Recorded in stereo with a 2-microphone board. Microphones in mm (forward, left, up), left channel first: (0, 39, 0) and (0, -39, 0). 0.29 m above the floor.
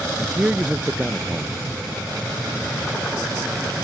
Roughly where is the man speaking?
Centre.